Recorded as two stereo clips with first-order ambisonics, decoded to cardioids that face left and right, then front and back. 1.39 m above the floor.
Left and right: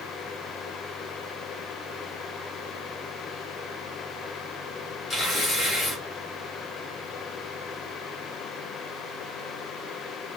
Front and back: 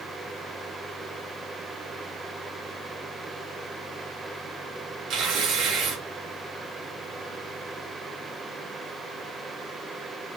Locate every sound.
5.1 s tearing paper: 155° left, 1.5 m